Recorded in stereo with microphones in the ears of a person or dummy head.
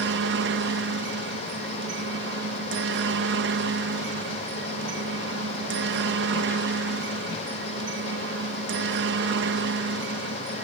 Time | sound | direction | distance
0.0 | a helicopter | 60° right (ahead or behind) | ?